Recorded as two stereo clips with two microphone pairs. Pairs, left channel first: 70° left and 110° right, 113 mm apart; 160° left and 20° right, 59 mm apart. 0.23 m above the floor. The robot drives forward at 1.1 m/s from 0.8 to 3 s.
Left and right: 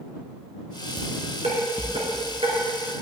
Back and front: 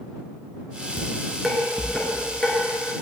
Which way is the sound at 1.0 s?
95° right.